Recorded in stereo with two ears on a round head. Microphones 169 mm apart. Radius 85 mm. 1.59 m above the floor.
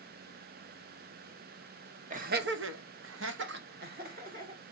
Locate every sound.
2.1 s laughter: 40° right (ahead or behind), 0.9 m; by 4.6 s 45° right (ahead or behind), 1.9 m